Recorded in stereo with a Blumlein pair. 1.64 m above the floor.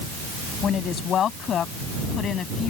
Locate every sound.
0.6 s a woman speaking: 30° left; by 2.7 s 25° left